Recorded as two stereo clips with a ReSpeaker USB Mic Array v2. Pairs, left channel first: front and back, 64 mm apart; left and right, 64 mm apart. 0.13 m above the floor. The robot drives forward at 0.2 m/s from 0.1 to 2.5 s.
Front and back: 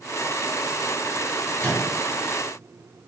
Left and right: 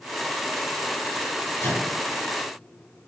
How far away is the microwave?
About 1.4 m.